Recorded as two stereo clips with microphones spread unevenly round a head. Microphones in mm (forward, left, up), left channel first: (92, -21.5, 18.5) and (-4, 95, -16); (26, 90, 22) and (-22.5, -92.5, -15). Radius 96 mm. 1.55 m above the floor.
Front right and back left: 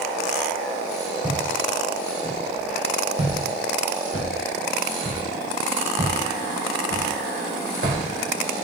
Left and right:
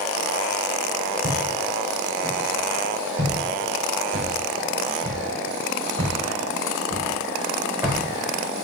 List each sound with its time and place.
1.2 s footsteps: 150° right, 6 m; by 8.6 s 170° left, 7 m